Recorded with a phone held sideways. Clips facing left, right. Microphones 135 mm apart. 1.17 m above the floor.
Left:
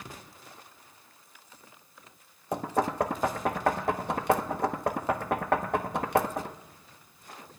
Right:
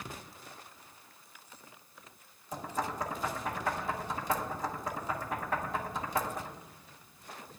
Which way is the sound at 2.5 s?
70° left (ahead or behind).